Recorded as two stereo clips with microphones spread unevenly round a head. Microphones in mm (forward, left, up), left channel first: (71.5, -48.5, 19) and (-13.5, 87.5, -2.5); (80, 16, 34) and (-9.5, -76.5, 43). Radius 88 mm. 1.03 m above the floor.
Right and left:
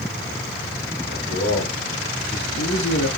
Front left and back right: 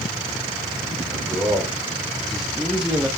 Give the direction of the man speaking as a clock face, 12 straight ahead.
1 o'clock.